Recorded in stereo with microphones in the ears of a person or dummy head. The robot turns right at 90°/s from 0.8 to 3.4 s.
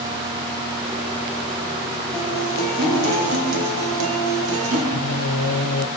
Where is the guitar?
160° left, 3 m; by 4.8 s 85° right, 3 m.